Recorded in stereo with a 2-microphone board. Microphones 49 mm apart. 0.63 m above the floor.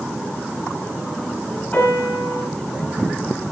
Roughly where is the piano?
Left.